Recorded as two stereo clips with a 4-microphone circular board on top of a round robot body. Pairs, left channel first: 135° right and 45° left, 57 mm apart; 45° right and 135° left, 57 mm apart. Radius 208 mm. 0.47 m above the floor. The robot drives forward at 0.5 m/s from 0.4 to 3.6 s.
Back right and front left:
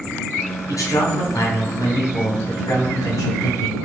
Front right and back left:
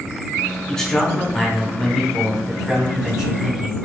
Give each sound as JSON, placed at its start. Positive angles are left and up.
{"t": 0.7, "sound": "a man speaking", "azimuth_deg": -125, "distance_m": 1.8}